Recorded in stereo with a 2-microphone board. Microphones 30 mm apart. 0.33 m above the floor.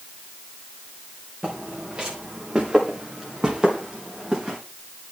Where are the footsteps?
30° right (ahead or behind), 3.5 m; by 4.6 s 20° right (ahead or behind), 5 m.